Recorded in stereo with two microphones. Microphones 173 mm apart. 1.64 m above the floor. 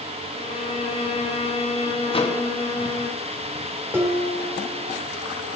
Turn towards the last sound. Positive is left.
turn(degrees=-15)  # may be behind; listen again after turning